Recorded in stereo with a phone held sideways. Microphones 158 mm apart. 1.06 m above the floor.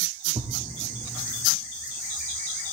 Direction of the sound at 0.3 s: 45° right (ahead or behind).